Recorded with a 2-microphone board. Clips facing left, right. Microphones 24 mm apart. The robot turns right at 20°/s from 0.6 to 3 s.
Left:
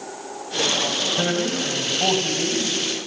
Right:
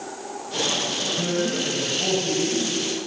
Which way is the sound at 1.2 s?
110° left.